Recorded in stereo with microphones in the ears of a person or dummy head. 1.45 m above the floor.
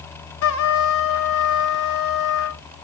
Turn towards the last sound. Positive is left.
turn(degrees=70)  # may be behind; listen again after turning